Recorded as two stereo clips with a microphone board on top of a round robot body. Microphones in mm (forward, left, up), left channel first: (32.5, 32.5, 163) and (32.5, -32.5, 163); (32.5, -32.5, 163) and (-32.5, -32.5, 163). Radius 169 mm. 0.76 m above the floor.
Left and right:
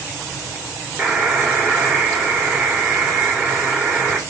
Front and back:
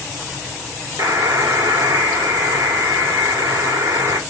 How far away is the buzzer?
About 1.3 m.